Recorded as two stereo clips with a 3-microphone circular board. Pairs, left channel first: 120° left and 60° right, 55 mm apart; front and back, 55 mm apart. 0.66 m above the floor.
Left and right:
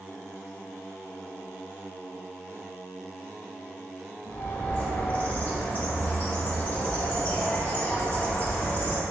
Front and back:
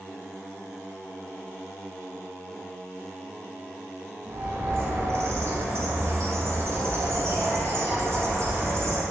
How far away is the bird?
About 0.8 m.